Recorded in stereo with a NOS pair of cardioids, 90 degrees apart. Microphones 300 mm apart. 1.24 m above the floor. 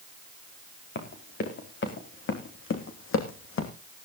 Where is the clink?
No clink in this recording.